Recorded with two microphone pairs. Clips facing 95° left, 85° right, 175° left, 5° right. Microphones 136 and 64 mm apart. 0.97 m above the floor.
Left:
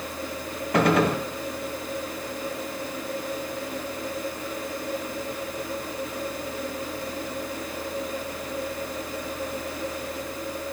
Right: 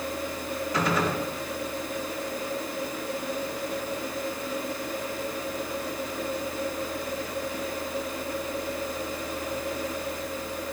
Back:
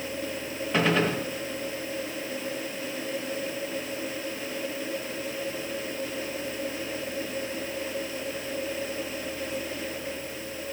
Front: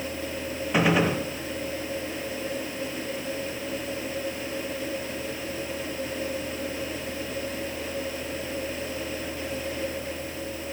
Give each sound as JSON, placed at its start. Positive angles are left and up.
{"t": 0.7, "sound": "a gunshot", "azimuth_deg": 75, "distance_m": 1.2}